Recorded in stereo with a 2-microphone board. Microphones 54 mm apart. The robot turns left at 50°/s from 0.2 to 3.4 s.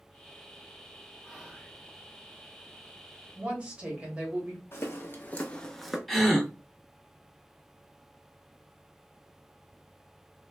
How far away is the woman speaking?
About 1.2 m.